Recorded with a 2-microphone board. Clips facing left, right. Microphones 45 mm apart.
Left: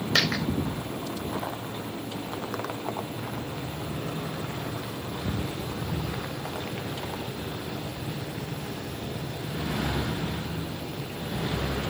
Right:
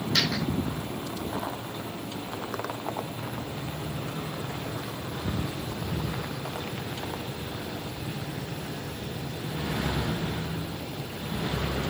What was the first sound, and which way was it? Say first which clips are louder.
A dropped coin: left 3 dB; 50° left (ahead or behind).